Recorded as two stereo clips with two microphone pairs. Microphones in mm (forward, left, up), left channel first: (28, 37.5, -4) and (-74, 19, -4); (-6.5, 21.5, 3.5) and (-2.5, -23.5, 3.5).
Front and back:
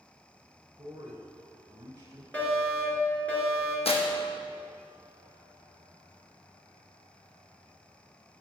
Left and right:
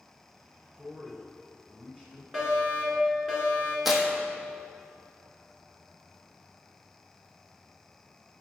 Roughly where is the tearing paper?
Ahead.